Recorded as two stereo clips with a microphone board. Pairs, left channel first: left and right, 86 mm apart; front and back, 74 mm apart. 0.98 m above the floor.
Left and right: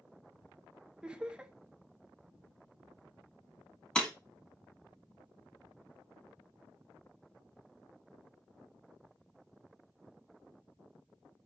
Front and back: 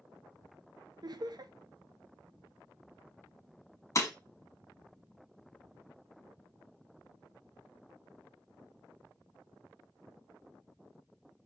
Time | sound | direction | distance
1.0 | laughter | 165° right | 0.5 m
4.0 | breaking glass | 15° left | 1.1 m